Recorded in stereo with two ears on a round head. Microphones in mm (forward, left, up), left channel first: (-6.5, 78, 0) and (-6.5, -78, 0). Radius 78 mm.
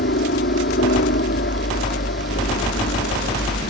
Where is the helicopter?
60° left (ahead or behind).